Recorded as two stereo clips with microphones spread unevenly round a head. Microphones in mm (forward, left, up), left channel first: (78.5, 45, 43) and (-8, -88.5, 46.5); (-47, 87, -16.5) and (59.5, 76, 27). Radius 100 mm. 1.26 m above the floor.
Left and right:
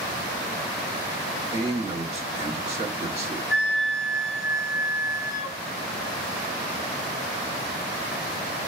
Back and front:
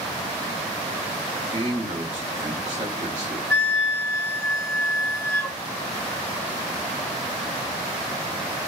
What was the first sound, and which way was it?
A man speaking, 65° right.